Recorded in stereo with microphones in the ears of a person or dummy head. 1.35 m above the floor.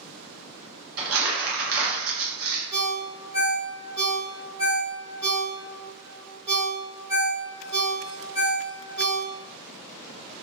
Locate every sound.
1.0 s crumpling: 75° right (ahead or behind), 0.8 m
2.7 s a ringtone: 20° right (ahead or behind), 1.1 m